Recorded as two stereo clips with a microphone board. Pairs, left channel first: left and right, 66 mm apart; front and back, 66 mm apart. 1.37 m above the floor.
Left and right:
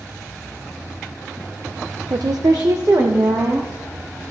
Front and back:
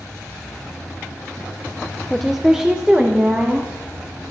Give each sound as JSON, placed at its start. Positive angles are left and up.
{"t": 2.1, "sound": "a woman speaking", "azimuth_deg": -80, "distance_m": 0.6}